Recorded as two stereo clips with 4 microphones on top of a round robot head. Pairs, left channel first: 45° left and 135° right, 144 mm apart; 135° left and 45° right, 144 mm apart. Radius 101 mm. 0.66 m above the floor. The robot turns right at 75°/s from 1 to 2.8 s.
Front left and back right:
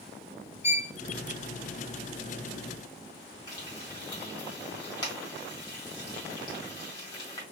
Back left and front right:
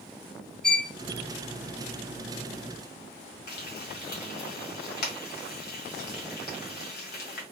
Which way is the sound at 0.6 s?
45° left.